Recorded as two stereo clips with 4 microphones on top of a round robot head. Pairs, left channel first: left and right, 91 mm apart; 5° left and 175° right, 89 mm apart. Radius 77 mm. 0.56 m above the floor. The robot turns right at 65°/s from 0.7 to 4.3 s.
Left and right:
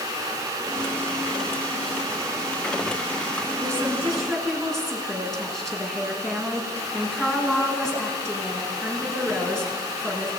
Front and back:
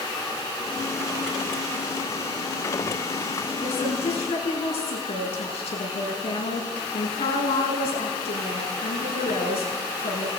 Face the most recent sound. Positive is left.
turn(degrees=5)